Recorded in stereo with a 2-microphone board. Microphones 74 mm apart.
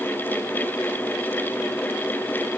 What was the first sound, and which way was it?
Only background noise.